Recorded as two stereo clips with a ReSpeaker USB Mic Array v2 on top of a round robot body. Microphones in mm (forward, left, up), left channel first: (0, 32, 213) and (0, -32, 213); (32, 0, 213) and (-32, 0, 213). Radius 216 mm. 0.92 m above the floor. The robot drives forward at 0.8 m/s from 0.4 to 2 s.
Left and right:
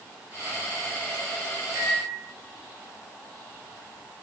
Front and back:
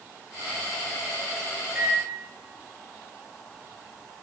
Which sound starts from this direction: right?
A microwave, at 1.8 s.